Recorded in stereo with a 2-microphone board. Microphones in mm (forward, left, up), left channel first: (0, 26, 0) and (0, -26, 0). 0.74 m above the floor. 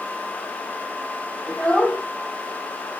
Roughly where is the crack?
No crack in this recording.